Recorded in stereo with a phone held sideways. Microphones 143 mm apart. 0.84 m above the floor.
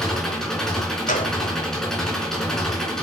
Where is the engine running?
5° left (ahead or behind), 4 m.